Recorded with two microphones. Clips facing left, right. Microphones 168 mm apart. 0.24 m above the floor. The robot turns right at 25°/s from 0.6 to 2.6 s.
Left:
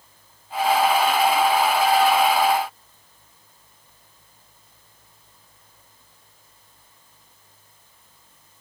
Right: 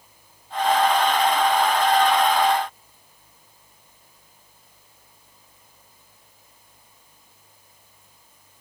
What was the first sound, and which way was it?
Only background noise.